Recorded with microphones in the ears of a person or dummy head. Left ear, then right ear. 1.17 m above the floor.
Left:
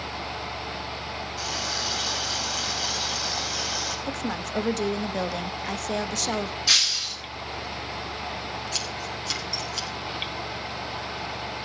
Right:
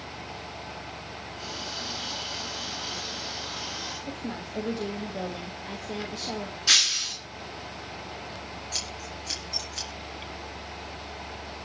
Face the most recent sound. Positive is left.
turn(degrees=15)  # may be behind; listen again after turning